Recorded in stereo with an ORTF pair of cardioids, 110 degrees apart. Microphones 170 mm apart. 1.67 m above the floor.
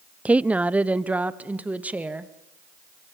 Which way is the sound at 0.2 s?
10° right.